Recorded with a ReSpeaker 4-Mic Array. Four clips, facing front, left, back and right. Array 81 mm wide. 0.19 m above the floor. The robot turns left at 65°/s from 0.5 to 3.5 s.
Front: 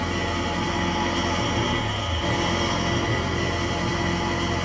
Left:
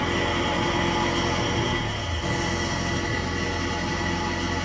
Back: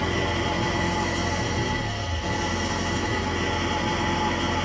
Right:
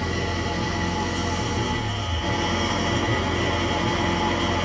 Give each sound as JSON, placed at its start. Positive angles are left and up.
{"t": 0.0, "sound": "an engine running", "azimuth_deg": 95, "distance_m": 0.9}